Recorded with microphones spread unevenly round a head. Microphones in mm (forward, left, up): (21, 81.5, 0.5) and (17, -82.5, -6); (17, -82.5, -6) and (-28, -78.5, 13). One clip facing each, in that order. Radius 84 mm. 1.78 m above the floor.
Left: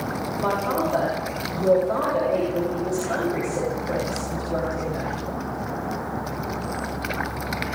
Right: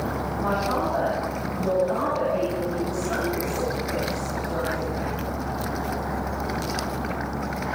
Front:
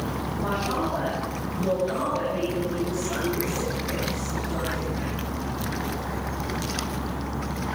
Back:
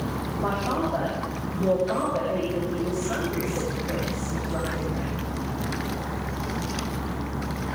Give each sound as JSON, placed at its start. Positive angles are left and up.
{"t": 0.4, "sound": "a man speaking", "azimuth_deg": 115, "distance_m": 9.0}